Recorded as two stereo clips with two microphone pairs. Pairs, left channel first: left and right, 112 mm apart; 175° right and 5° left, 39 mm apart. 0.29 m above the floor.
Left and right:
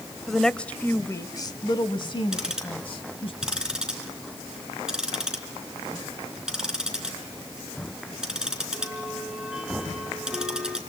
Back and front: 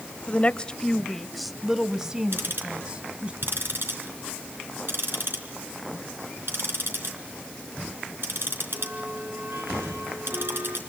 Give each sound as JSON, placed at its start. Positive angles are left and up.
{"t": 0.3, "sound": "a woman speaking", "azimuth_deg": -175, "distance_m": 1.2}
{"t": 2.3, "sound": "ticking", "azimuth_deg": -5, "distance_m": 3.5}